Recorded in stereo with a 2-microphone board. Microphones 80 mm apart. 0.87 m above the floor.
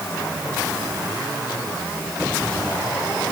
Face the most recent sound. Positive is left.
No sound to turn to.